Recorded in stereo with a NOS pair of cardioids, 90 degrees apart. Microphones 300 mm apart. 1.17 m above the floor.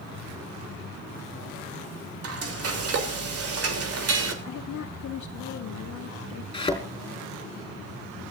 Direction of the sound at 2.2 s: 50° right.